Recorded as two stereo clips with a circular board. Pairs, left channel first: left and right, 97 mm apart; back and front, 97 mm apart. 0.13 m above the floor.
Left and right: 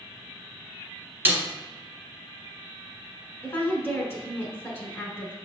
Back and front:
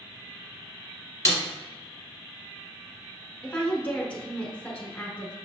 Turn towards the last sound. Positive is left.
turn(degrees=120)